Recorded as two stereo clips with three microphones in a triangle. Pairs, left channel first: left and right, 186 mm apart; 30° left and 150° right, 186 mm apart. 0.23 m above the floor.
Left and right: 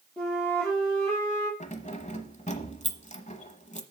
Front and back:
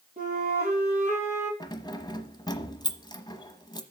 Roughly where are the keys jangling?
Left.